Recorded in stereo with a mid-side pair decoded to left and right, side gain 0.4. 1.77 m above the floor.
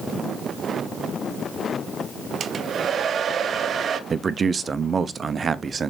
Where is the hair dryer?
60° right, 0.9 m.